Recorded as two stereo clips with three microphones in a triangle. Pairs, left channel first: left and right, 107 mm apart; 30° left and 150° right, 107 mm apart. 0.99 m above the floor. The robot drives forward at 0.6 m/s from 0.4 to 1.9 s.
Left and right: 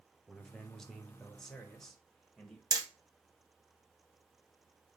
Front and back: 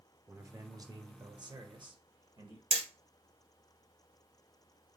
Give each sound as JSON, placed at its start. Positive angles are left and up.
{"t": 0.3, "sound": "a man speaking", "azimuth_deg": 175, "distance_m": 0.9}
{"t": 2.7, "sound": "hammering", "azimuth_deg": -140, "distance_m": 1.0}